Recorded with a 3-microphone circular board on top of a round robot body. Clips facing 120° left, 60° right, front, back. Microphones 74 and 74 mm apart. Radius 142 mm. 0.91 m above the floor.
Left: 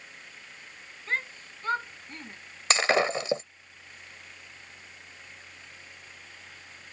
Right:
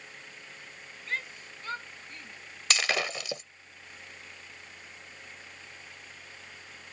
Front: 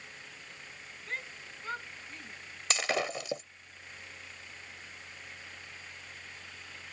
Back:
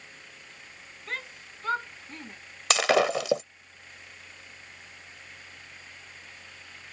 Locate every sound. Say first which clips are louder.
1.1 s a shout: left 4 dB, back 3 dB; straight behind; by 2.4 s 175° left
2.7 s breaking glass: left 6 dB, back 10 dB; 175° right